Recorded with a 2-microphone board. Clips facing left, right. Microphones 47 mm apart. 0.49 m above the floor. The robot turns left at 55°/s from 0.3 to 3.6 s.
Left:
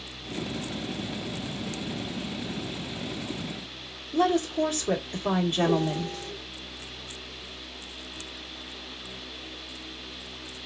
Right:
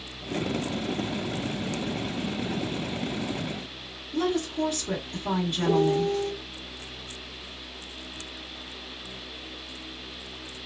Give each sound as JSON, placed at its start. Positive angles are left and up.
{"t": 4.1, "sound": "a woman speaking", "side_deg": 25, "distance_m": 1.2}
{"t": 5.6, "sound": "a piano", "side_deg": -25, "distance_m": 1.4}